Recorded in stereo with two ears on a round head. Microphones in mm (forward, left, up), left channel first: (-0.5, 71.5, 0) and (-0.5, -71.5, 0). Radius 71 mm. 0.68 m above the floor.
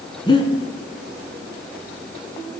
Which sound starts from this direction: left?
Breathing, at 0.3 s.